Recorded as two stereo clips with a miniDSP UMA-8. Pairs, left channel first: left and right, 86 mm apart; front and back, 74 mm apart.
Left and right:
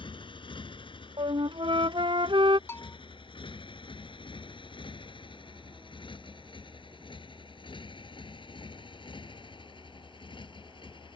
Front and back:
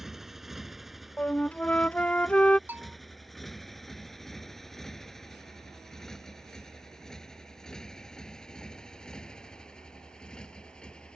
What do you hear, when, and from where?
0.0 s a motorcycle: 95° left; by 11.2 s 80° left
1.2 s a flute: 75° right
2.7 s a bell: 130° left